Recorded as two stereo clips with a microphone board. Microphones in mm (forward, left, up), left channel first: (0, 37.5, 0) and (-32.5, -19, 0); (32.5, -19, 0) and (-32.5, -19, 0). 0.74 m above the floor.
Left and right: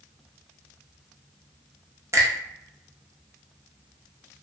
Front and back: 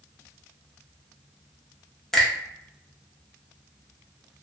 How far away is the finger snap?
About 0.7 m.